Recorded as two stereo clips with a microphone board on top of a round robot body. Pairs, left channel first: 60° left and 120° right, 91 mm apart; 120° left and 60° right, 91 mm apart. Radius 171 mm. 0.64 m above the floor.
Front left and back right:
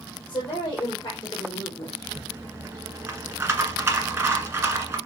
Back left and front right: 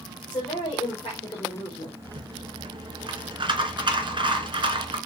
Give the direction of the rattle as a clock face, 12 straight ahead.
2 o'clock.